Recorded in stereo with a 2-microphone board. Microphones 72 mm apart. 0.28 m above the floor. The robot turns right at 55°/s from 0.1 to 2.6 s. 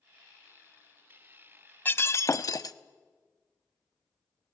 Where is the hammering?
No hammering in this recording.